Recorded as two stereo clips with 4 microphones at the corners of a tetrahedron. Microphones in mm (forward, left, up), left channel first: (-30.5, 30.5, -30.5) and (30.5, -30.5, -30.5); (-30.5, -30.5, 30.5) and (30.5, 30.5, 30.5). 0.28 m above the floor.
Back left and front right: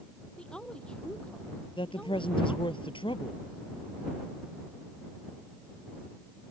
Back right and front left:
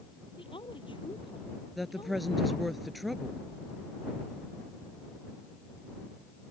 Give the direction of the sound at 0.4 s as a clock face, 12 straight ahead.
5 o'clock.